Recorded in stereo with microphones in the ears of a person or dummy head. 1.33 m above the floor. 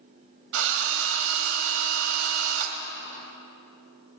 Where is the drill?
60° right (ahead or behind), 1.3 m.